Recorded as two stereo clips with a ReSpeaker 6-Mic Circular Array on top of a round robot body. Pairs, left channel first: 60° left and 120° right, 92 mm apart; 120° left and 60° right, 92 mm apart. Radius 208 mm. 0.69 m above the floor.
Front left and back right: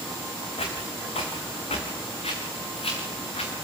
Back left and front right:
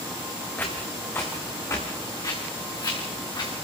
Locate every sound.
0.6 s footsteps: 45° left, 4 m; by 3.5 s 75° left, 4.5 m